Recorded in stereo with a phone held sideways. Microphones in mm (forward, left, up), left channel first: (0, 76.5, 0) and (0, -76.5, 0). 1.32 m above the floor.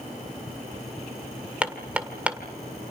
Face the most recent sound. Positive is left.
turn(degrees=-10)  # may be behind; listen again after turning